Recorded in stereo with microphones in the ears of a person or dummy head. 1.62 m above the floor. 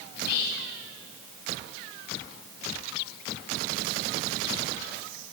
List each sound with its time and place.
0.1 s whispering: 65° left (ahead or behind), 1.2 m